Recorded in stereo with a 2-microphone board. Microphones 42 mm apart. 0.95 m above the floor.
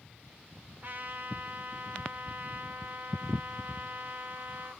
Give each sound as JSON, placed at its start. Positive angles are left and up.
{"t": 0.8, "sound": "a trumpet", "side_deg": -45, "distance_m": 0.9}